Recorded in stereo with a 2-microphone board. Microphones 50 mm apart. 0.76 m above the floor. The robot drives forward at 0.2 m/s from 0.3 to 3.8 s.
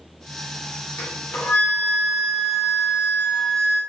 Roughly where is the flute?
Left.